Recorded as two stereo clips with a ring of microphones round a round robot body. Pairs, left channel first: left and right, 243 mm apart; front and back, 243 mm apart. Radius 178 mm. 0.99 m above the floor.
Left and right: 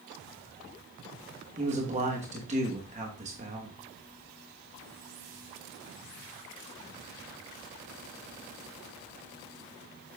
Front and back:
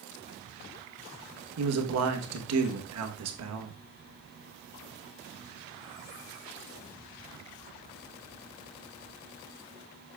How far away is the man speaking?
About 1.1 m.